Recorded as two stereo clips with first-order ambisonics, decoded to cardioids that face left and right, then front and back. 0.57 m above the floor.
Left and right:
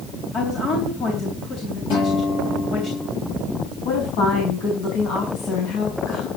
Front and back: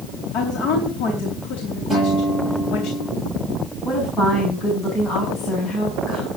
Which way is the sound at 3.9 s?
70° left.